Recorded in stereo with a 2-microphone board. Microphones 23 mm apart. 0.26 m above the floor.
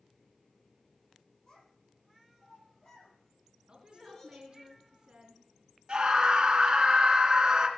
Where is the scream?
45° right (ahead or behind), 3 m.